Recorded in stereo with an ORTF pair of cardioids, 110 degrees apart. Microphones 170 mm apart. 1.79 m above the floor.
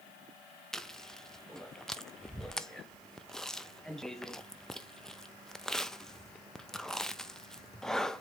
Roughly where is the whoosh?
I don't hear a whoosh.